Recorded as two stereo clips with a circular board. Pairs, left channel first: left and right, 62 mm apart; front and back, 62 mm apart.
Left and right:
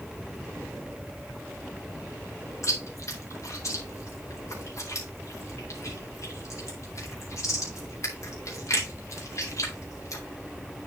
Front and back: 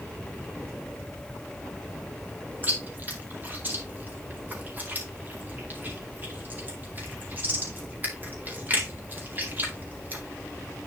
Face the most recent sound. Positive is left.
turn(degrees=120)